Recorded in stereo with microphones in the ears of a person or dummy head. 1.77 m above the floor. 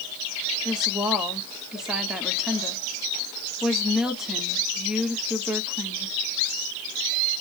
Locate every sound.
0.7 s a woman speaking: 5° left (ahead or behind), 1.0 m